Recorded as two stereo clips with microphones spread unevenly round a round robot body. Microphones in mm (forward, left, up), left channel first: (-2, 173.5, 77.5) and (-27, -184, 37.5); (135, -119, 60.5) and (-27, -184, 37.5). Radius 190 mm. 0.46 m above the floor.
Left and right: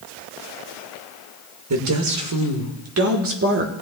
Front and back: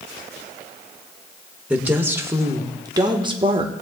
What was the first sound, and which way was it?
A woman speaking, 80° right.